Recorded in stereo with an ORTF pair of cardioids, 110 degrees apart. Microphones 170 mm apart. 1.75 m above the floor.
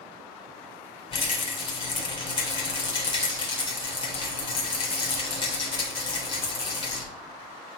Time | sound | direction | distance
1.1 | a rattle | 30° left | 2.5 m